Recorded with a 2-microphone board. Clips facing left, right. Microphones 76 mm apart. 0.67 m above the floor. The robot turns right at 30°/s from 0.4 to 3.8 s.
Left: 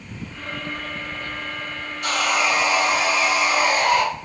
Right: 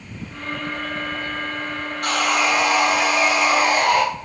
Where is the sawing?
125° right, 1.0 m; by 4.0 s 70° right, 1.0 m.